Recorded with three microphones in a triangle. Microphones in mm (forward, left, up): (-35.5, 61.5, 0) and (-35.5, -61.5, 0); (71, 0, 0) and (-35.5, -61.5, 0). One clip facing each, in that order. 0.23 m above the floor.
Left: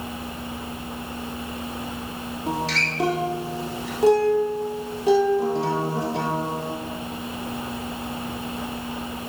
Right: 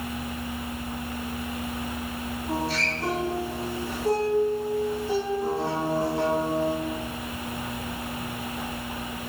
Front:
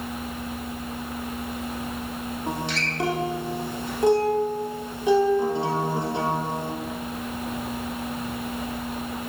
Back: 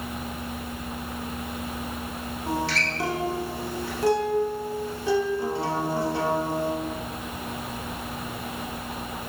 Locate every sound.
2.5 s a guitar: 100° left, 2.5 m